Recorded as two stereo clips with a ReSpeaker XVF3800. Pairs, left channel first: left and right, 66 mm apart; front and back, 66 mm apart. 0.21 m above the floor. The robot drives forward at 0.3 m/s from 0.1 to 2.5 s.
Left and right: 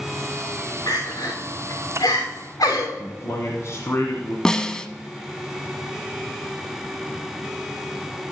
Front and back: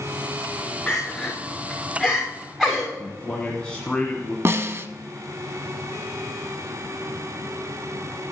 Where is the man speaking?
70° left, 1.5 m.